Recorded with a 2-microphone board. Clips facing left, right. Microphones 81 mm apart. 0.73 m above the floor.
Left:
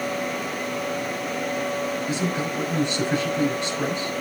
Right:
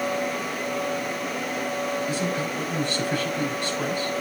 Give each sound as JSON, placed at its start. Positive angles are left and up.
{"t": 2.1, "sound": "a man speaking", "side_deg": 20, "distance_m": 6.0}